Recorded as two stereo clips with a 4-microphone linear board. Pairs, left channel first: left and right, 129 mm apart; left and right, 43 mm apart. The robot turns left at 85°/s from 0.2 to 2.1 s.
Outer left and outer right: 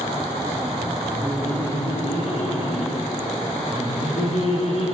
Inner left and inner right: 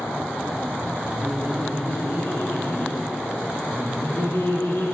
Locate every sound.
1.2 s laughter: 160° right, 9.5 m; by 5.0 s 125° left, 9.5 m